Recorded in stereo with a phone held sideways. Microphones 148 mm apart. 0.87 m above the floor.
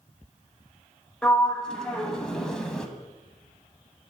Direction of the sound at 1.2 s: 5° left (ahead or behind).